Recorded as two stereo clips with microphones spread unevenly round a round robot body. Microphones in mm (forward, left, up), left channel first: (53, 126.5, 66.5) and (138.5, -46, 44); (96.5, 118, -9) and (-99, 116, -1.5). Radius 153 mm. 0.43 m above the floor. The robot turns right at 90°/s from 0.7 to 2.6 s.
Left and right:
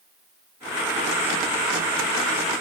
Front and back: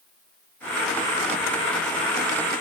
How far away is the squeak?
No squeak in this recording.